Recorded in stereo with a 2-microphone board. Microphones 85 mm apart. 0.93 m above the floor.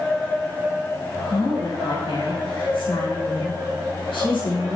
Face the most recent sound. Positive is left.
turn(degrees=80)